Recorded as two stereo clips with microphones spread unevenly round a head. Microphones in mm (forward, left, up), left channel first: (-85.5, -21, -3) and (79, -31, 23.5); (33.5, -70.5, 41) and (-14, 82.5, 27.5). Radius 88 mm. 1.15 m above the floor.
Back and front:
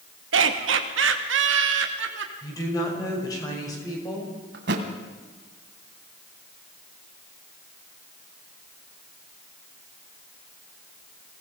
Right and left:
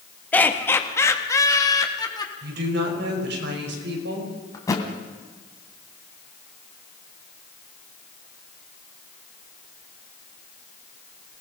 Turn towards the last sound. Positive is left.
turn(degrees=-5)